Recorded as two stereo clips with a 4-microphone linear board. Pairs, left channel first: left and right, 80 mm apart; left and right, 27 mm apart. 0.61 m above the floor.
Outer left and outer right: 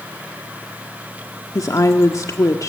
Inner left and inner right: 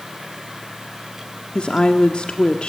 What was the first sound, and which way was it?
A woman speaking, 45° left (ahead or behind).